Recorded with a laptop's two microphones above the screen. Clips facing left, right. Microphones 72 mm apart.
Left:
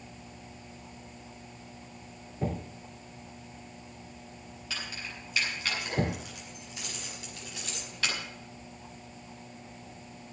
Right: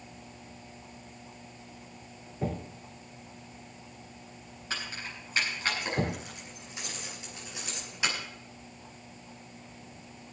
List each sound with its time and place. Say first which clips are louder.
4.7 s keys jangling: right 2 dB; 40° right (ahead or behind), 8 m; by 8.2 s 15° right (ahead or behind), 5 m